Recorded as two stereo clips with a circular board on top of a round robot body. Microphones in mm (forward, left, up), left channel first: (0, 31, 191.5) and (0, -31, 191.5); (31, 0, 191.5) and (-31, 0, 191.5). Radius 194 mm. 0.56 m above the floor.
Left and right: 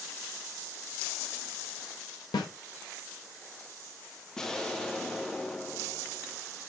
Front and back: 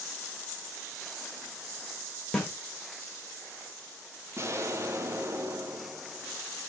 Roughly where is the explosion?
Behind.